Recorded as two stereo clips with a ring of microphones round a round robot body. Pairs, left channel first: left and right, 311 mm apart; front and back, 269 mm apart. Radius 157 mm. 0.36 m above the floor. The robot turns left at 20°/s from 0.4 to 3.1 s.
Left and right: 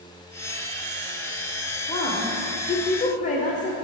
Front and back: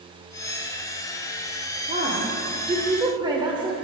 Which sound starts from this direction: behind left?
A woman speaking, at 1.9 s.